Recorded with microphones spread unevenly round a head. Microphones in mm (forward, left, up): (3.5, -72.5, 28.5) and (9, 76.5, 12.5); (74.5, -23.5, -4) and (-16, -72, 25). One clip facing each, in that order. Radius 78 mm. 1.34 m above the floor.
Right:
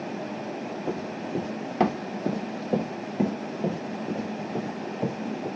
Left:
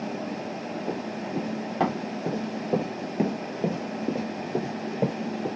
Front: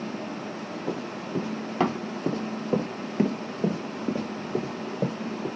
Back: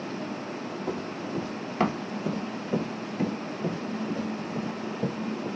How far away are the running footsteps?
About 1.8 m.